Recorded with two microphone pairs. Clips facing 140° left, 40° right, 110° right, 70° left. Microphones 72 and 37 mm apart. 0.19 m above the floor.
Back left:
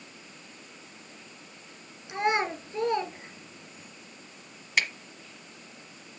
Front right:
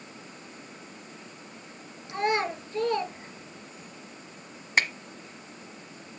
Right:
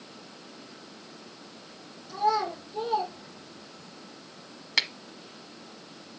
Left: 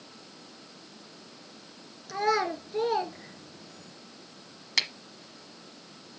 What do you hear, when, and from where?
2.1 s a child speaking: 70° left, 1.7 m
4.8 s a finger snap: 35° right, 1.0 m